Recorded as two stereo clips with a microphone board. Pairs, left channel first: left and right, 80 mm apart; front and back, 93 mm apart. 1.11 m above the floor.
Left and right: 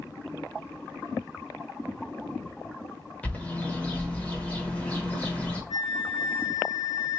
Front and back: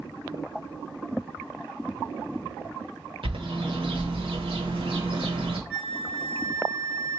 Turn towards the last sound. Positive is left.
turn(degrees=-85)